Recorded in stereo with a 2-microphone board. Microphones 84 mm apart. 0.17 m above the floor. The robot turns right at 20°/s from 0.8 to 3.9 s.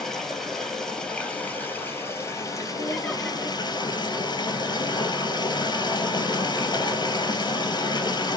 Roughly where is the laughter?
Centre.